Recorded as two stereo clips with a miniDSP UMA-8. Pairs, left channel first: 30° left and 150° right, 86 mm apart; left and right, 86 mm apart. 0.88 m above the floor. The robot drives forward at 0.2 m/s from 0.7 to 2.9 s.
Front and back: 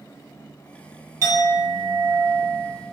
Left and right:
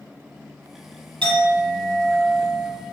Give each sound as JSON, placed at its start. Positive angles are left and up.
{"t": 1.2, "sound": "a clink", "azimuth_deg": -95, "distance_m": 0.9}